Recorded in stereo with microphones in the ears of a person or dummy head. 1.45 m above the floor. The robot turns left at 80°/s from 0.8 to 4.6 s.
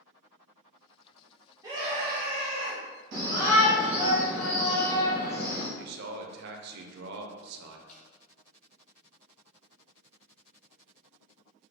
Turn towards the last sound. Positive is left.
turn(degrees=40)  # may be behind; listen again after turning